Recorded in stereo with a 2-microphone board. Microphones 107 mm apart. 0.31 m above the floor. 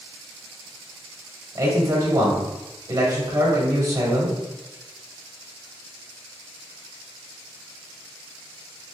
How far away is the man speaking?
About 1.4 m.